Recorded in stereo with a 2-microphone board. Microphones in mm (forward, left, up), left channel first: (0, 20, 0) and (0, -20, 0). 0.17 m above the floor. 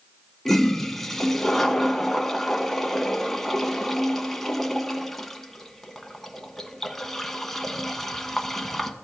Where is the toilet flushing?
10° left (ahead or behind), 0.7 m.